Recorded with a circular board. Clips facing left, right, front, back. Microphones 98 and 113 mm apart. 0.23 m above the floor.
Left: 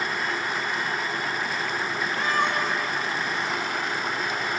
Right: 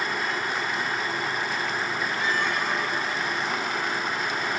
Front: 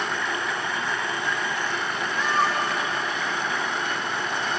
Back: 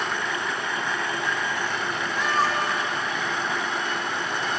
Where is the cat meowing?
100° left, 6 m.